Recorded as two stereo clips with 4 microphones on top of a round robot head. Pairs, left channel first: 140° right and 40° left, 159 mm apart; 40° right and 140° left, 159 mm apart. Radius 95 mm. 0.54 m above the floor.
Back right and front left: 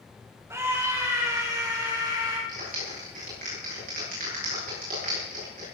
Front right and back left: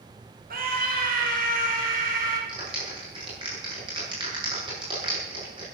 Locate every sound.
0.5 s a scream: 115° left, 4 m; by 2.4 s 105° left, 6 m
2.5 s a clap: 80° left, 8.5 m